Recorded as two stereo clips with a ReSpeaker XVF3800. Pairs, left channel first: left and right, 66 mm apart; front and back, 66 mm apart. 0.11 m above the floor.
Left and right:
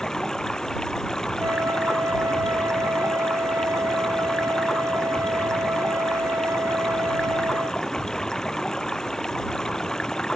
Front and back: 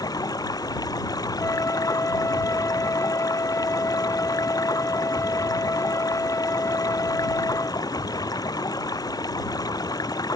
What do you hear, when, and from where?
0.0 s running water: 10° left
1.4 s a flute: 45° right